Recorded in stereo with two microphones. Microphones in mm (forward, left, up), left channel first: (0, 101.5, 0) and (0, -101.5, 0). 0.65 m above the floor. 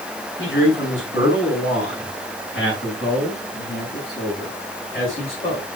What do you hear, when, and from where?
0.4 s a man speaking: 80° left, 4 m; by 5.8 s 50° left (ahead or behind), 10 m